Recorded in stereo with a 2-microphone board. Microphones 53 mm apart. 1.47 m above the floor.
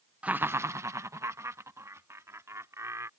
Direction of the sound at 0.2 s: 25° right (ahead or behind).